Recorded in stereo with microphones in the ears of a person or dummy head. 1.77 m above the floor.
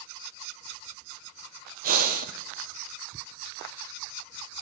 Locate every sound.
1.8 s breathing: 55° right (ahead or behind), 0.8 m